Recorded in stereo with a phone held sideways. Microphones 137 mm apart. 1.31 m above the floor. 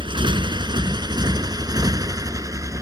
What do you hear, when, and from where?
0.0 s a motorcycle: 40° right (ahead or behind); by 2.8 s 25° right (ahead or behind)